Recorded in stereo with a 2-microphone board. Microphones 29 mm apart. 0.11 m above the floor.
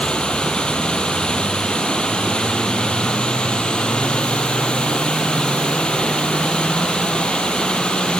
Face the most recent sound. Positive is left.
turn(degrees=30)  # may be behind; listen again after turning